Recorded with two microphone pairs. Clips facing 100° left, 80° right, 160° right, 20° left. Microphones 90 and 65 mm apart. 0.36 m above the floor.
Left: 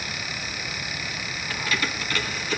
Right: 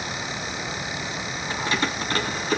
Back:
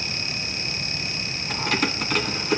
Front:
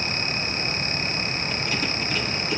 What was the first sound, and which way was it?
Keys jangling, 145° right.